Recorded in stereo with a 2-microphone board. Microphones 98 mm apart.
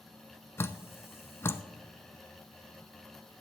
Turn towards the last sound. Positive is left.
turn(degrees=25)  # may be behind; listen again after turning